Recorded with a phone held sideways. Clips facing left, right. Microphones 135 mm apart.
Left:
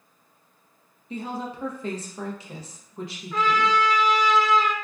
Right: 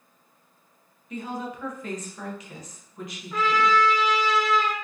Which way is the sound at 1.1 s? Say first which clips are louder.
Left 1 dB; 30° left (ahead or behind).